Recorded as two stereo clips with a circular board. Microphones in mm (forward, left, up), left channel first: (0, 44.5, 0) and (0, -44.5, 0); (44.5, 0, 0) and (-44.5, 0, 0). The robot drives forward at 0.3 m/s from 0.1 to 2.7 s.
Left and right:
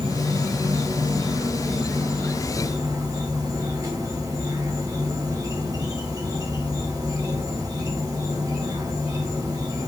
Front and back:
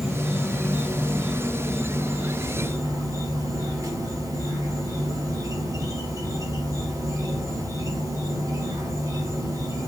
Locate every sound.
0.0 s an insect: 90° right, 0.9 m; by 9.9 s 135° right, 1.2 m